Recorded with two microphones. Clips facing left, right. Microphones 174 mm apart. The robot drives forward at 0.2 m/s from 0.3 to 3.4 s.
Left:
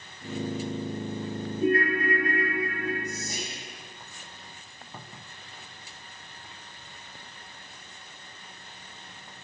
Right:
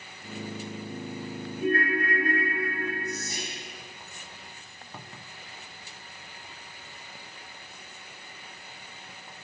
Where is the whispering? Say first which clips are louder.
Even; 40° left (ahead or behind), 0.8 m.